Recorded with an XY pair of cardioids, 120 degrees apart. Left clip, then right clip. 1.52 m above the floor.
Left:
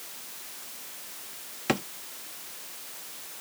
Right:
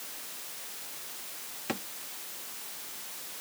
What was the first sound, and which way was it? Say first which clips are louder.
A drawer: left 8 dB; 50° left.